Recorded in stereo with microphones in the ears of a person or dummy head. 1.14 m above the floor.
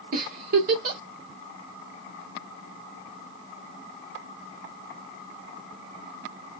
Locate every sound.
0.1 s a giggle: 50° right (ahead or behind), 1.0 m